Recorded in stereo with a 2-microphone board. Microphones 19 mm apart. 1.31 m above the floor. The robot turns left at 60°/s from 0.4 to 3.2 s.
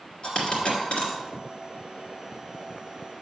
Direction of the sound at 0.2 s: 45° left (ahead or behind).